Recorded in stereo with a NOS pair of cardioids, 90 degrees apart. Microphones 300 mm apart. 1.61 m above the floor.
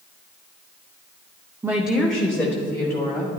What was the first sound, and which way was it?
A woman speaking, 10° right.